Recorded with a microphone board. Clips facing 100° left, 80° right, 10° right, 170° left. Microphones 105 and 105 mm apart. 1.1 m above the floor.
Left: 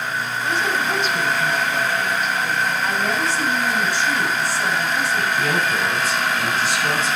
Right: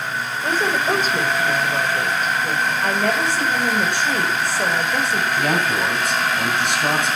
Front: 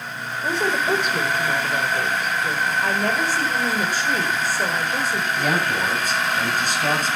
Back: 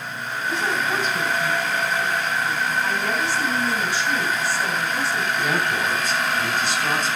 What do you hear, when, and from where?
0.4 s a woman speaking: 35° right, 3.5 m
2.8 s a woman speaking: 55° right, 5.5 m
5.4 s a man speaking: 55° right, 9 m